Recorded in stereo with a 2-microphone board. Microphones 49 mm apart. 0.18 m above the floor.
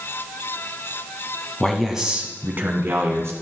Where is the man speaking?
10° left (ahead or behind), 1.3 m; by 3.3 s 55° right (ahead or behind), 2 m.